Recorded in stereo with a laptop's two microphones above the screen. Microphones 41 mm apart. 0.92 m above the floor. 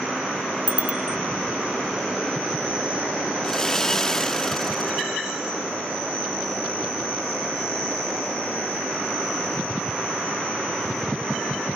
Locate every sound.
0.7 s a bicycle bell: 40° right (ahead or behind)
3.4 s sawing: 15° left (ahead or behind)